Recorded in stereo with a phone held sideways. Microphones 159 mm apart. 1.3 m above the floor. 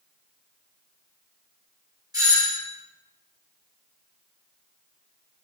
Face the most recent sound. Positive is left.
turn(degrees=-25)  # may be behind; listen again after turning